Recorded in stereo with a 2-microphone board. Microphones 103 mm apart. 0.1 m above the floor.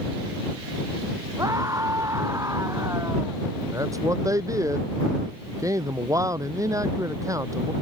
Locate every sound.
1.4 s a scream: 35° right (ahead or behind); by 3.4 s 30° right (ahead or behind)
3.7 s a man speaking: 35° right (ahead or behind)